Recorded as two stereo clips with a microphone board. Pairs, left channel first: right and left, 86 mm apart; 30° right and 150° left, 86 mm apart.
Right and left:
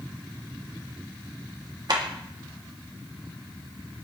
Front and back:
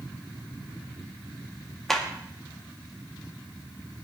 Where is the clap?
55° left, 2 m.